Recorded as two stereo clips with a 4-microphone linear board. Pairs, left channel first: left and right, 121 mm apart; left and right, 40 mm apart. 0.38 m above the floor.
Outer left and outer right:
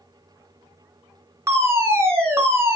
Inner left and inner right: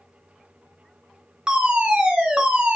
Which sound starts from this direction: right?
A fire alarm, at 1.5 s.